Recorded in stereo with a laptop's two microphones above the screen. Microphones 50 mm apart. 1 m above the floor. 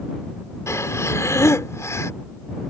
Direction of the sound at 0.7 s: 70° left (ahead or behind).